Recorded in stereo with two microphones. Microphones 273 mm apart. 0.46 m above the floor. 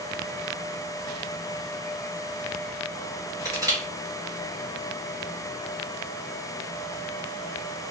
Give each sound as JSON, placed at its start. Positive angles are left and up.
{"t": 3.5, "sound": "crushing", "side_deg": -10, "distance_m": 1.5}